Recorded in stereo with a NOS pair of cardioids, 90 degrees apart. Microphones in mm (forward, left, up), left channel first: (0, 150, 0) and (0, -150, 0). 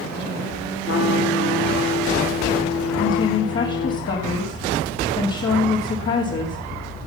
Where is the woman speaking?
40° left, 2.5 m.